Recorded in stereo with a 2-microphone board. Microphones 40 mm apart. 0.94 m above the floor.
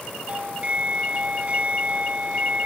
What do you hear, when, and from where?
0.3 s a doorbell: 30° right (ahead or behind)